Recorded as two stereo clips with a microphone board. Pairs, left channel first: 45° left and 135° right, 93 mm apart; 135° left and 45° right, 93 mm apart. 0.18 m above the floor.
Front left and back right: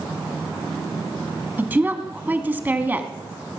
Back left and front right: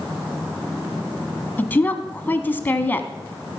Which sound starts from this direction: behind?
A woman speaking, at 1.6 s.